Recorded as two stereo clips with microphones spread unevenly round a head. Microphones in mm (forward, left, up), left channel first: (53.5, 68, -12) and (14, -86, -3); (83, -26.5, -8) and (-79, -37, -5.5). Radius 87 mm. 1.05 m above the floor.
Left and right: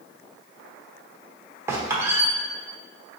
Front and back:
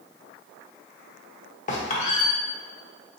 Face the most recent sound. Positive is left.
turn(degrees=-35)